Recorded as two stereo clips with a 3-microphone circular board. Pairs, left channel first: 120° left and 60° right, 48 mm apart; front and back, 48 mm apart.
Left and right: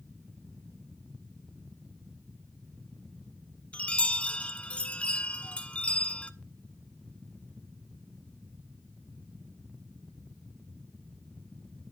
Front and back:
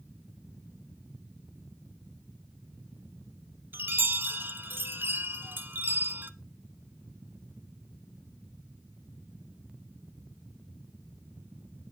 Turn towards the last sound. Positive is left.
turn(degrees=170)